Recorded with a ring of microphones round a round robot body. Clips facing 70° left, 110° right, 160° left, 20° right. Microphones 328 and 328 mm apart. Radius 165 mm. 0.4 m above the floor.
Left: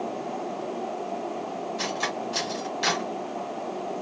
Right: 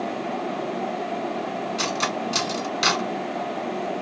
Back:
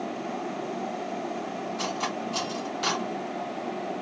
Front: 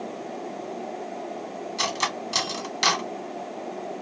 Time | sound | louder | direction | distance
1.8 | cutlery clinking | right 4 dB, back 1 dB | 60° right | 0.9 m